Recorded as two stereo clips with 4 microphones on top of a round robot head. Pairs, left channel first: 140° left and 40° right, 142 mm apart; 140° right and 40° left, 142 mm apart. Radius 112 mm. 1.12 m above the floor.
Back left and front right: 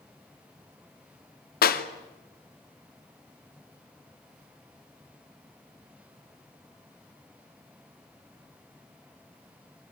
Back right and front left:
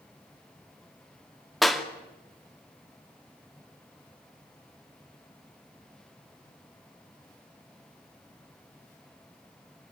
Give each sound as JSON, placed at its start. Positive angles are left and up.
{"t": 1.6, "sound": "a clap", "azimuth_deg": 125, "distance_m": 2.5}